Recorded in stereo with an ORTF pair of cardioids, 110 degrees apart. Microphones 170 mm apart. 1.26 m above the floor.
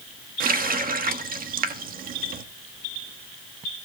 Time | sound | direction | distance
0.4 | a running tap | 60° right | 1.4 m